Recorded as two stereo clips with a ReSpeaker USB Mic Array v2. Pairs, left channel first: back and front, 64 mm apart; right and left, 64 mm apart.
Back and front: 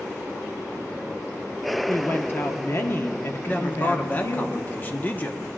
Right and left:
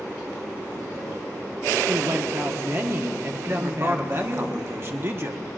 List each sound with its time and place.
1.9 s a woman speaking: 135° left, 1.1 m
3.5 s a man speaking: 125° left, 1.0 m